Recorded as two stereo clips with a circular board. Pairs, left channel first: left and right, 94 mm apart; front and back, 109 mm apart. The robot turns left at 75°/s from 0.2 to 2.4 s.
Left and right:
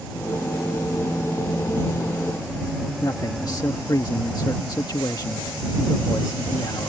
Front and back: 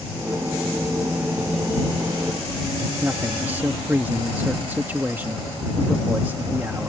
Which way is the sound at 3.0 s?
115° left.